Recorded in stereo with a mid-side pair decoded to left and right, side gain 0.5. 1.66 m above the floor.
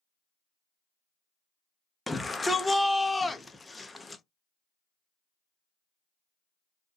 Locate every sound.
2.1 s a shout: 20° left, 0.7 m